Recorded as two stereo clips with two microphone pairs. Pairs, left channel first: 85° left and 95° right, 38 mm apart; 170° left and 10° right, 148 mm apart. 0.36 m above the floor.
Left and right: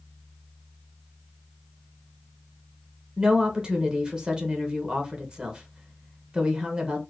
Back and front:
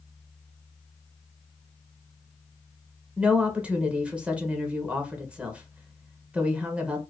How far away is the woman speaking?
About 0.9 m.